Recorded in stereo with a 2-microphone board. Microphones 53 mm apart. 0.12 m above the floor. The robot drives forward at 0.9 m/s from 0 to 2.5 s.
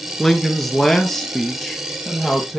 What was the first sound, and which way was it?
A man speaking, 5° left (ahead or behind).